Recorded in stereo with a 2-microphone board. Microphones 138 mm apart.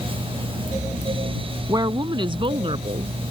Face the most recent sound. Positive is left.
turn(degrees=-45)  # may be behind; listen again after turning